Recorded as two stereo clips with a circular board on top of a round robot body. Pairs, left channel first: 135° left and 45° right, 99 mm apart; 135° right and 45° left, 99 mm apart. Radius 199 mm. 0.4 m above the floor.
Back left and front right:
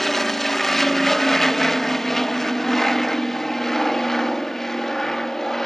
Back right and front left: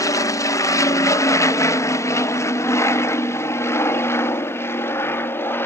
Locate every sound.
0.0 s an aircraft: 140° right; by 5.7 s 145° right